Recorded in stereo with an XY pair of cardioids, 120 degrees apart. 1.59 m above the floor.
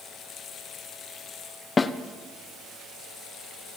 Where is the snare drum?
25° left, 0.7 m.